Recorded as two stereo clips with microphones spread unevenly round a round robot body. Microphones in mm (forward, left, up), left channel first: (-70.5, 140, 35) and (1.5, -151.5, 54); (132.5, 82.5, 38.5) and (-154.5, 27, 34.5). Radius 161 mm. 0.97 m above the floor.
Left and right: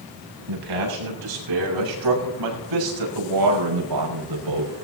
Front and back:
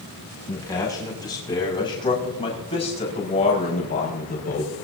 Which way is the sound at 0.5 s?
70° right.